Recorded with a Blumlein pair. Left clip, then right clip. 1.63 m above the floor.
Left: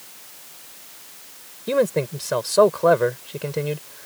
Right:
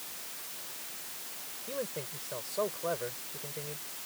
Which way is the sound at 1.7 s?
40° left.